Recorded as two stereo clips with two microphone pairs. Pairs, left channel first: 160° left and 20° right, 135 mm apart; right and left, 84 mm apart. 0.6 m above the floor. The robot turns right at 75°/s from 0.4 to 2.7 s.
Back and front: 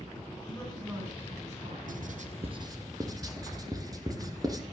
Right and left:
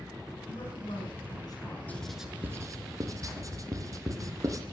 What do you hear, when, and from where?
0.5 s a man speaking: 130° right, 6 m; by 1.8 s 35° right, 6 m
1.9 s writing: 20° right, 2.5 m; by 4.6 s 40° left, 2.5 m